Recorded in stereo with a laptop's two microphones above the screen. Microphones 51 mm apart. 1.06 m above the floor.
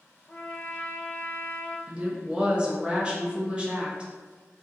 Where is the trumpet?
25° left (ahead or behind), 0.6 m.